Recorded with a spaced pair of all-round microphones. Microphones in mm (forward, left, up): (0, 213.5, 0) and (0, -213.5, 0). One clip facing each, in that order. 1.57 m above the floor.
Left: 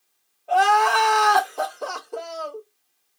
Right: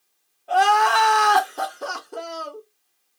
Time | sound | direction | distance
0.5 | crying | 30° right (ahead or behind) | 0.6 m